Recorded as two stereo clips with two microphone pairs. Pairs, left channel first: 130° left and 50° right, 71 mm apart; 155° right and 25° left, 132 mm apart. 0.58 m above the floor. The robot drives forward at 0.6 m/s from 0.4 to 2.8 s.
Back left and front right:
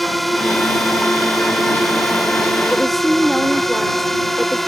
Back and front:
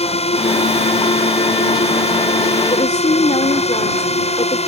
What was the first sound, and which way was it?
A drone, 140° right.